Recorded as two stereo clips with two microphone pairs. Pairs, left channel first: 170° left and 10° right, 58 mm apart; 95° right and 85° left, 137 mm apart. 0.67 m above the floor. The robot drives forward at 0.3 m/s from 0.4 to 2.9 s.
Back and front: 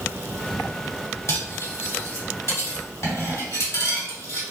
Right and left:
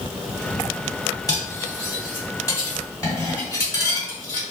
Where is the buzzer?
I don't hear a buzzer.